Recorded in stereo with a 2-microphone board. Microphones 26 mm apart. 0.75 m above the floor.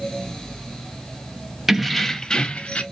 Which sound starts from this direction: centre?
Keys jangling, at 1.7 s.